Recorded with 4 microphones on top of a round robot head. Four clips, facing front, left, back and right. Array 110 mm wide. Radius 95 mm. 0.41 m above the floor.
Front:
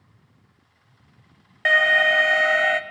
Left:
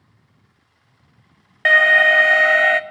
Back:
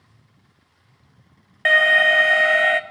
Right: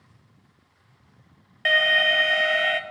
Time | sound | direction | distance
1.6 | an alarm | 100° left | 0.9 m